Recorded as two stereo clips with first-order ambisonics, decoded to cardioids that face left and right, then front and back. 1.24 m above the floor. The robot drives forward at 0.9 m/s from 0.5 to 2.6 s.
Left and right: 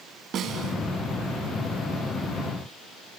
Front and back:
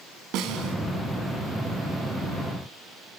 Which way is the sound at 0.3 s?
145° right.